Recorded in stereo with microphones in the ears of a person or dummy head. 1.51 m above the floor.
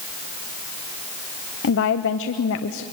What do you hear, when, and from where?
1.6 s a woman speaking: 65° left (ahead or behind), 0.7 m